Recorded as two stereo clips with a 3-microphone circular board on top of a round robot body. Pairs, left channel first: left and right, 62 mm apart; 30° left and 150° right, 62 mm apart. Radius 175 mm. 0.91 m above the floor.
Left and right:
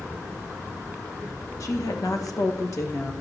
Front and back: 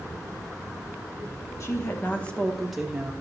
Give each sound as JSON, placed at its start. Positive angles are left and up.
{"t": 1.6, "sound": "a woman speaking", "azimuth_deg": 65, "distance_m": 1.4}